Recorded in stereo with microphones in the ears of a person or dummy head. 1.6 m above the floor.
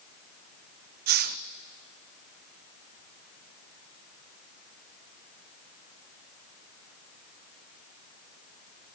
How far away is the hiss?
About 0.7 m.